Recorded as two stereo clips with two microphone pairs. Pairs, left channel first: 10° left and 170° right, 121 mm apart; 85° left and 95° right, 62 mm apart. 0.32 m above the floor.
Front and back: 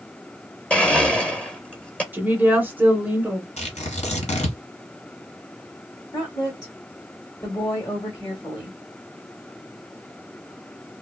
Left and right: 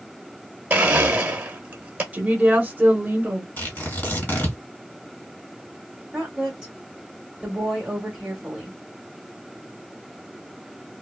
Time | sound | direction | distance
0.7 | a blender | 60° right | 0.8 m
2.1 | a woman speaking | 115° right | 1.1 m
3.6 | tearing paper | 25° left | 1.9 m
6.1 | a woman speaking | 20° right | 1.2 m